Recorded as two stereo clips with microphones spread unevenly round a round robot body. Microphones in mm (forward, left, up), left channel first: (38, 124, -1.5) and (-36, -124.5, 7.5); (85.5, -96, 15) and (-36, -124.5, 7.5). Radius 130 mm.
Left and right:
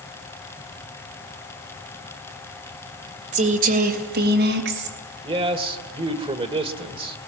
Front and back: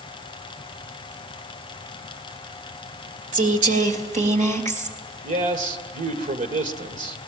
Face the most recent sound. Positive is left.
turn(degrees=-175)